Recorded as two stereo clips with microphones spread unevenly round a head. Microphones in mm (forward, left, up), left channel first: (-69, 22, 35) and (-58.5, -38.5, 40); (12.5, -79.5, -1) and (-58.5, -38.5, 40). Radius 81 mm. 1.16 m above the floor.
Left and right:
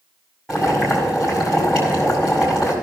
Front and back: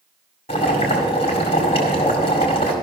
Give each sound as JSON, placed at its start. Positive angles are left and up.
{"t": 0.5, "sound": "boiling", "azimuth_deg": 5, "distance_m": 1.9}